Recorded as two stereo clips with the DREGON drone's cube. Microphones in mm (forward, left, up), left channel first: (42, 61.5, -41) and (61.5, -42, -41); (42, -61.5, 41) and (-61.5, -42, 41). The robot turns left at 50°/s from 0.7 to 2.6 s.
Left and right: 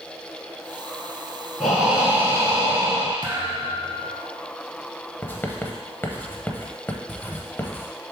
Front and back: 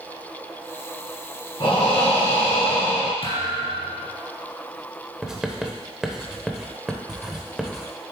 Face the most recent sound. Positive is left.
turn(degrees=95)